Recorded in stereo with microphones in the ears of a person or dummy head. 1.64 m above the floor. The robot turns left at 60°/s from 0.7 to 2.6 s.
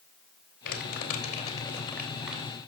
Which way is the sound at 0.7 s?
70° left (ahead or behind).